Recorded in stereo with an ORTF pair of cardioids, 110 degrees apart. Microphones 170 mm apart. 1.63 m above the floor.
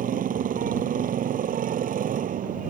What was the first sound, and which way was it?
A motorcycle, 55° right.